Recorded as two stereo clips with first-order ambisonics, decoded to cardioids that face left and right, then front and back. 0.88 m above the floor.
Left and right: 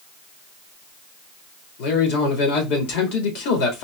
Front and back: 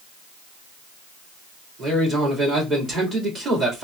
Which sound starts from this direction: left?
A man speaking, at 1.8 s.